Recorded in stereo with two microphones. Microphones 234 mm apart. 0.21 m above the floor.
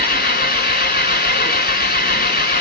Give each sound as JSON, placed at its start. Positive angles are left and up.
{"t": 0.0, "sound": "an engine running", "side_deg": 40, "distance_m": 0.8}